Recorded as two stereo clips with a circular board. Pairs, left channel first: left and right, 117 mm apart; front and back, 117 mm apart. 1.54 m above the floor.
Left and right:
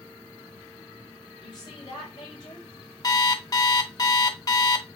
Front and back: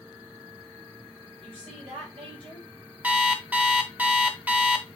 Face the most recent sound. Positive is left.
turn(degrees=115)